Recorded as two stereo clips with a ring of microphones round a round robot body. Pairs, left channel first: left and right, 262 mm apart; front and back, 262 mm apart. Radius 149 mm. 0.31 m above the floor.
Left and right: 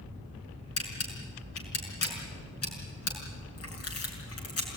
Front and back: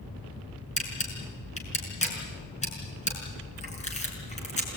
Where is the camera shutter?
65° left, 6 m.